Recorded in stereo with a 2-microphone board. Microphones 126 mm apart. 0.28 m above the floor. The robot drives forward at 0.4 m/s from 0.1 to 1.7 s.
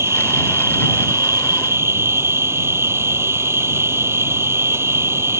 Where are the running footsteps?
No running footsteps in this recording.